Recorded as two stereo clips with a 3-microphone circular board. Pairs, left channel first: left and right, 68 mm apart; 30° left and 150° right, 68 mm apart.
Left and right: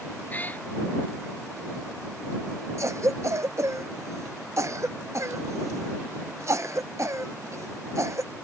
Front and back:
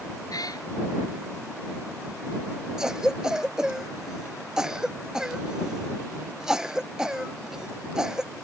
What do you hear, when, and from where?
0.3 s a cat meowing: 25° left
2.8 s a cough: 75° right